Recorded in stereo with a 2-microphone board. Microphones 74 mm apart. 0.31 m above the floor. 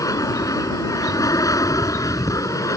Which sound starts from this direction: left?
An aircraft, at 0.0 s.